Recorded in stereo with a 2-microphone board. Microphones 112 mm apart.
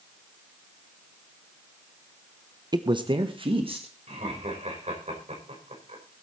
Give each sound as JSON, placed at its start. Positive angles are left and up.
{"t": 2.7, "sound": "a woman speaking", "side_deg": -40, "distance_m": 0.8}
{"t": 4.1, "sound": "laughter", "side_deg": -90, "distance_m": 5.5}